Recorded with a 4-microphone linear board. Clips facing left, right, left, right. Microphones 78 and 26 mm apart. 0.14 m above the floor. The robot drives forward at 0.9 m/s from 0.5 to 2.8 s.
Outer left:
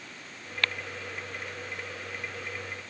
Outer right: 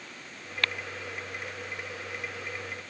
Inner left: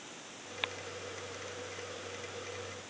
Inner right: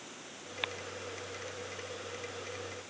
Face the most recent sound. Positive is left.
No sound to turn to.